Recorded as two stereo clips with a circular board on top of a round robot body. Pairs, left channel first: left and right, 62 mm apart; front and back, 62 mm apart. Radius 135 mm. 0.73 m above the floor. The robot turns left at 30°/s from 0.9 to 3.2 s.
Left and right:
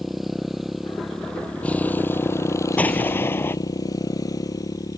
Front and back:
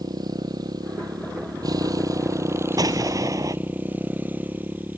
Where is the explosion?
160° left; by 3.6 s 145° left.